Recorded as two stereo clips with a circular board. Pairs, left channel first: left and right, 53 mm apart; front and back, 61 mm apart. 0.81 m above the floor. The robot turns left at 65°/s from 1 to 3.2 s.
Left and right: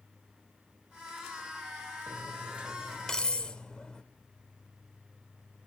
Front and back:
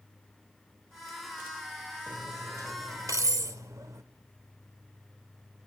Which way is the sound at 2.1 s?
125° right.